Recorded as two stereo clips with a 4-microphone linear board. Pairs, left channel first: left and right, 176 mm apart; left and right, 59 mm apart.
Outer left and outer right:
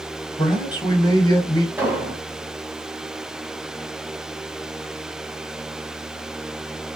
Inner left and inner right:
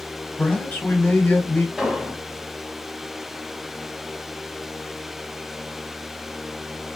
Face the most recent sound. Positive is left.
turn(degrees=-10)  # may be behind; listen again after turning